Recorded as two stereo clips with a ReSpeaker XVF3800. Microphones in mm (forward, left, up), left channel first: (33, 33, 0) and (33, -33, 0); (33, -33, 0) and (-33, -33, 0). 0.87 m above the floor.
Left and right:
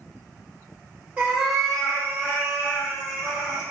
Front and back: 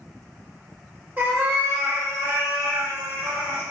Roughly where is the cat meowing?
Behind right.